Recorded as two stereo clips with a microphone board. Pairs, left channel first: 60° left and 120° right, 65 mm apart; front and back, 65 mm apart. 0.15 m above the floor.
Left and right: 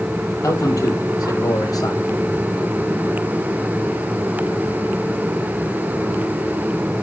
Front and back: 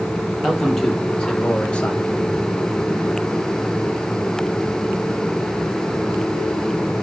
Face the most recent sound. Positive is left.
turn(degrees=65)